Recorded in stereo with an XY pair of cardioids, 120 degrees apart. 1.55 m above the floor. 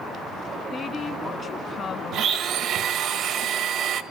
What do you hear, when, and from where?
0.7 s a woman speaking: 40° left, 2 m
2.1 s a blender: 65° right, 1.6 m